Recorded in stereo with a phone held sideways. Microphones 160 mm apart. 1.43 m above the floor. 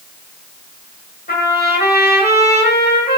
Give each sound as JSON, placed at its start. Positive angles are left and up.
{"t": 1.3, "sound": "a trumpet", "side_deg": 85, "distance_m": 1.0}